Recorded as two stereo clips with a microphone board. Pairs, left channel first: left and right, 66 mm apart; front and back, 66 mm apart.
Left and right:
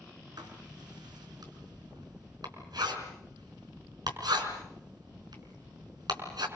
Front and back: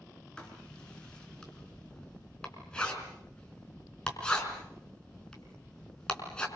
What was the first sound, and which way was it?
Writing, 80° right.